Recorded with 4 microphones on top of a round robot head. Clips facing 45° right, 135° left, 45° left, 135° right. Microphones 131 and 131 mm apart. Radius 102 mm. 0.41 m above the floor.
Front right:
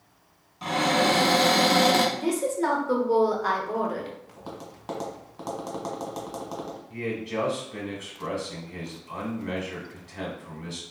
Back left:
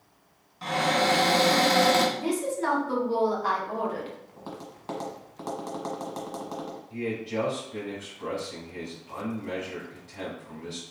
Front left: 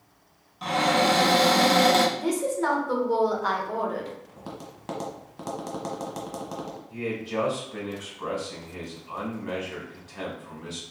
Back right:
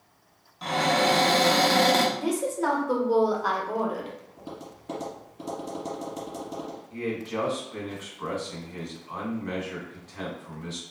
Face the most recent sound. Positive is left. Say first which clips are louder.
# even, front left 1 dB
turn(degrees=-35)